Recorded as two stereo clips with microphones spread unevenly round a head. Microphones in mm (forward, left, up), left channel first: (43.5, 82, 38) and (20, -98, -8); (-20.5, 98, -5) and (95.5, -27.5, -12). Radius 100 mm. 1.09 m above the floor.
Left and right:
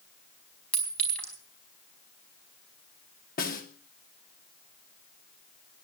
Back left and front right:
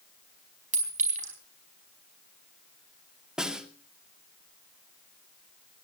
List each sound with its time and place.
0.7 s a clink: straight ahead, 4.5 m
3.4 s a snare drum: 40° left, 2.5 m